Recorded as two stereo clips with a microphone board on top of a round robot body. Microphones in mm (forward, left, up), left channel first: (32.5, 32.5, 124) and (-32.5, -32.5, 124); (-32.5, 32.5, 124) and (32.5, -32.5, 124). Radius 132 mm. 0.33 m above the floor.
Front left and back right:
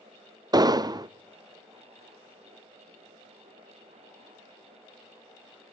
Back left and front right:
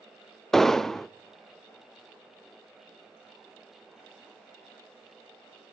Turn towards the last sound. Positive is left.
turn(degrees=-140)